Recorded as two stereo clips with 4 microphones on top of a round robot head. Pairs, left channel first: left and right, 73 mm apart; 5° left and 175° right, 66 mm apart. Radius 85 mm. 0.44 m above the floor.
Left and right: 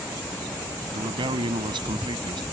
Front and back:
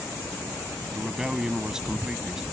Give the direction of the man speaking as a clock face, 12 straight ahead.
3 o'clock.